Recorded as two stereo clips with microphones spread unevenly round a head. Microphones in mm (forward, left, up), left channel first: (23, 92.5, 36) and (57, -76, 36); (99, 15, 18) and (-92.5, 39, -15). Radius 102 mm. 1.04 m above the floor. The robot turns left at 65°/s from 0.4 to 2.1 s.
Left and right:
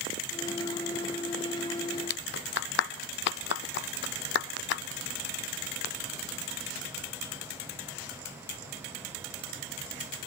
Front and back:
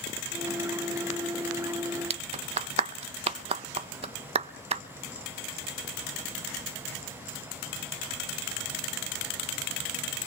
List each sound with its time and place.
2.1 s a clap: 120° left, 0.7 m